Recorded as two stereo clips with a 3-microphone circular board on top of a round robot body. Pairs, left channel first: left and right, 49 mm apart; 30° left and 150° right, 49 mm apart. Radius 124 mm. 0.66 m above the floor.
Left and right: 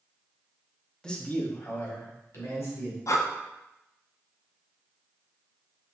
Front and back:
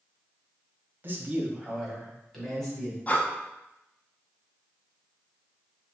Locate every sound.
1.0 s a man speaking: 165° left, 1.1 m; by 3.0 s 105° left, 3 m
3.1 s breathing: 90° left, 0.6 m